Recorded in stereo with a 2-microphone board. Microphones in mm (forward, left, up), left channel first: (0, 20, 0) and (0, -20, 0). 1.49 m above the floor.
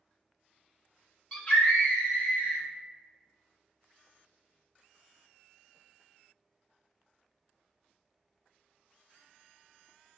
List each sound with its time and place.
1.3 s a scream: 20° left (ahead or behind), 0.9 m; by 2.6 s 40° left (ahead or behind), 1.6 m